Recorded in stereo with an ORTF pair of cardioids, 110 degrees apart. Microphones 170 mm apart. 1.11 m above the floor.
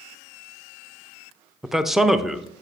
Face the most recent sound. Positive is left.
turn(degrees=0)